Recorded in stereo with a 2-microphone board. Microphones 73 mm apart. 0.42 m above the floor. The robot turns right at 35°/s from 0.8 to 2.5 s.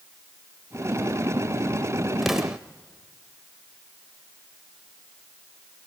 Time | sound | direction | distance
2.2 | an explosion | centre (ahead or behind) | 1.1 m